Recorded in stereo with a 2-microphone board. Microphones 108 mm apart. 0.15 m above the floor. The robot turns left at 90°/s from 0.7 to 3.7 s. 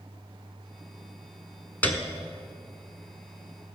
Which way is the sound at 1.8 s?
15° left (ahead or behind).